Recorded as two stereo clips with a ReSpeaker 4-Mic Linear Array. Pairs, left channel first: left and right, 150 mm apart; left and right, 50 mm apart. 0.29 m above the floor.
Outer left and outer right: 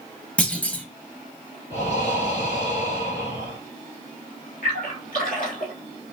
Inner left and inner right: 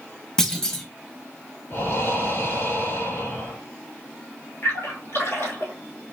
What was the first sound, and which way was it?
A clunk, 10° left (ahead or behind).